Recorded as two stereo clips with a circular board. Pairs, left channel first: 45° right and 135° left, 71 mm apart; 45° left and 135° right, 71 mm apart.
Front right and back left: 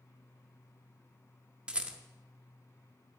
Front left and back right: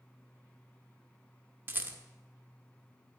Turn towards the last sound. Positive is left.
turn(degrees=-165)